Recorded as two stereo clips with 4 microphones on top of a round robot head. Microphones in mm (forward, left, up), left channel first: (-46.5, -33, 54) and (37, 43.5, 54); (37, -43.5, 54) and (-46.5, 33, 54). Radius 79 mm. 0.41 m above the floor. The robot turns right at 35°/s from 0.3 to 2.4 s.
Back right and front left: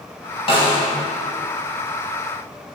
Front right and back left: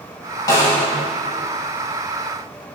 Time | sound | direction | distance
0.5 | a snare drum | 100° right | 4 m